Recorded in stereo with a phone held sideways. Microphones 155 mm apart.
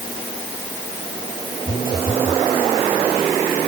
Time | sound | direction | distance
1.7 | a phone buzzing | 70° left (ahead or behind) | ?